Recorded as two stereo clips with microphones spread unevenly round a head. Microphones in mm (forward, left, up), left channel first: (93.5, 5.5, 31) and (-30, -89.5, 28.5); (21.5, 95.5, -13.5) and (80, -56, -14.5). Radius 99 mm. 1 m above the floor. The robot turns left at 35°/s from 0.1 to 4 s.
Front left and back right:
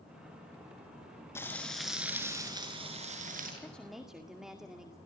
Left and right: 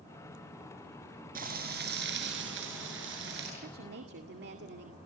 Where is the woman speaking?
40° right, 2 m; by 5.0 s 55° right, 2 m.